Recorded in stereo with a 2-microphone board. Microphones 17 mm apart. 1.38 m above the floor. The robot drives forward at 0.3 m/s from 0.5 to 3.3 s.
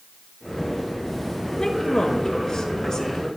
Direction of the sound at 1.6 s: 50° left (ahead or behind).